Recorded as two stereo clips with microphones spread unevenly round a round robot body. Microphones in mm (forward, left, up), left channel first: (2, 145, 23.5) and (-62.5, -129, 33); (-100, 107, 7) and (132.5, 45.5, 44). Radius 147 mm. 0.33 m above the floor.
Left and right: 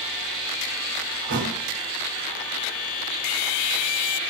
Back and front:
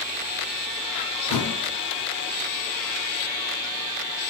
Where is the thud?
155° right, 1.0 m.